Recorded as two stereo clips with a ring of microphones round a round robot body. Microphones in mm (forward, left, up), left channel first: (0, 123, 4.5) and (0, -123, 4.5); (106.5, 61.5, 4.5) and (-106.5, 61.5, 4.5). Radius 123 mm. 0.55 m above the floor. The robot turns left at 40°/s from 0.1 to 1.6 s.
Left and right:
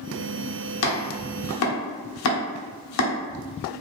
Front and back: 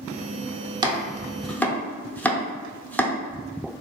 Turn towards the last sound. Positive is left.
turn(degrees=80)